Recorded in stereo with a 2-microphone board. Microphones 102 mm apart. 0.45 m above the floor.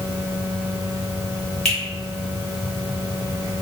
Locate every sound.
1.6 s a finger snap: 5° left (ahead or behind), 1.4 m